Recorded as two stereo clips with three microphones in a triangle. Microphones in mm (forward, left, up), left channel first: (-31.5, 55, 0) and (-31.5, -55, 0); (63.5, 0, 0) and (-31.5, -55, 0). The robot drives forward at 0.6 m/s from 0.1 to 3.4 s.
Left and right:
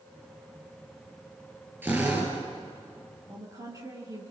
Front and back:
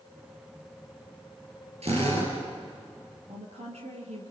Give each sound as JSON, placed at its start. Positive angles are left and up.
{"t": 1.8, "sound": "a drill", "azimuth_deg": -160, "distance_m": 5.0}
{"t": 3.3, "sound": "a woman speaking", "azimuth_deg": -145, "distance_m": 5.0}